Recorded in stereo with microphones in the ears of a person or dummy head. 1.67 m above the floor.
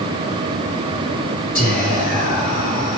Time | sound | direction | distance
1.6 | whispering | 45° left (ahead or behind) | 1.8 m